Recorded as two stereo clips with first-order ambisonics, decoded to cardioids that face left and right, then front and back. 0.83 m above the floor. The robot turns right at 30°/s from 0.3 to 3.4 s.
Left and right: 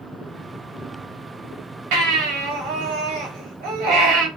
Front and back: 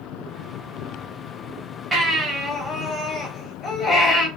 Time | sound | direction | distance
1.9 | a baby crying | 105° right | 3.5 m